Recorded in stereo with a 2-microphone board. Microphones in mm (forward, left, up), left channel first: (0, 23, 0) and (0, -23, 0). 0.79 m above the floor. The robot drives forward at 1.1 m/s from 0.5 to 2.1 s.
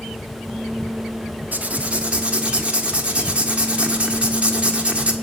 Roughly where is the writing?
Right.